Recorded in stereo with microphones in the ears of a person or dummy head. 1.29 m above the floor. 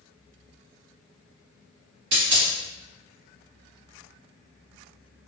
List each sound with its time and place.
2.1 s a dropped coin: 30° right (ahead or behind), 1.3 m